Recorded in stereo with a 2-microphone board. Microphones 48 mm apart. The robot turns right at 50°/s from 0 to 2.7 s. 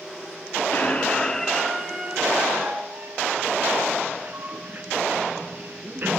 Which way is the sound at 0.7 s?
125° left.